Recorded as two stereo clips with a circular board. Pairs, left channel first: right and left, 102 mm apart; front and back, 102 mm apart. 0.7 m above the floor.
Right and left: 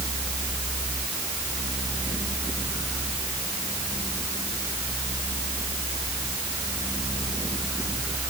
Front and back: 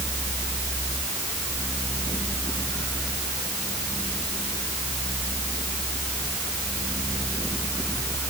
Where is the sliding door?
I don't hear a sliding door.